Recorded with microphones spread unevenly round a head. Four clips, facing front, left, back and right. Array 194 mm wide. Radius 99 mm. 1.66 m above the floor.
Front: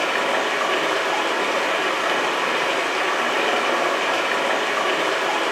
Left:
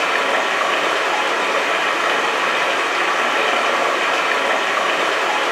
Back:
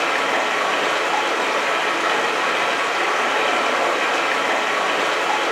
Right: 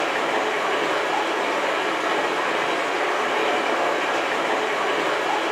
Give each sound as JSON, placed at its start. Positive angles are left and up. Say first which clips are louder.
{"t": 0.0, "sound": "running water", "louder": "left 4 dB, back 1 dB", "azimuth_deg": 85, "distance_m": 0.8}